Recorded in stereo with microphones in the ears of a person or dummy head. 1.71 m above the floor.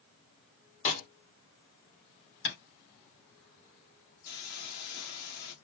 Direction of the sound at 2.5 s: 60° left (ahead or behind).